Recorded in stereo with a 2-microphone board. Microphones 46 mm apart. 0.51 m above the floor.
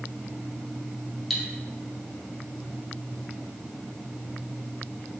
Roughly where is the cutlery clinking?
Centre.